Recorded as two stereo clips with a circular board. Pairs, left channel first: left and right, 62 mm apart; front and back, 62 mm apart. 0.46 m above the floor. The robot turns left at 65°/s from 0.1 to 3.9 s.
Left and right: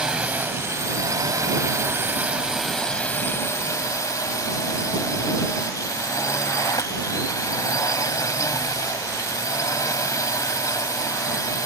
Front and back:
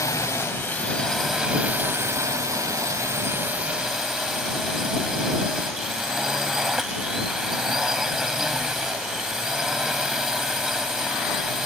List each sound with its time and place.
0.0 s a drone: 15° right; by 11.7 s 100° left